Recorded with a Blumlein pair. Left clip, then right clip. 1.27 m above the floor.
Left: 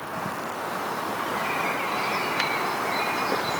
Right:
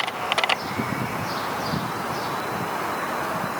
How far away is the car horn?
I don't hear a car horn.